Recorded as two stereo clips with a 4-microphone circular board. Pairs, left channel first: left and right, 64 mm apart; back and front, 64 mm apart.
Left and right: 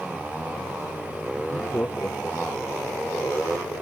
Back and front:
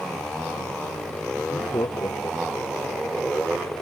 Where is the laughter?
155° left.